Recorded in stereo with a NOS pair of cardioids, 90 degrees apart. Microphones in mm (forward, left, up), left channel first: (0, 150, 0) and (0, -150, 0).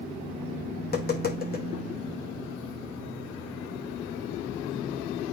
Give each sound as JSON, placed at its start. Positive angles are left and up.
{"t": 0.8, "sound": "tapping", "azimuth_deg": 30, "distance_m": 1.9}